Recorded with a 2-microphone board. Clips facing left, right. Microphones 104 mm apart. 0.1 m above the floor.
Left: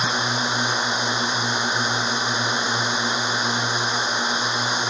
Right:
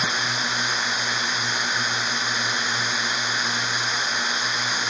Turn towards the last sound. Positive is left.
turn(degrees=25)  # may be behind; listen again after turning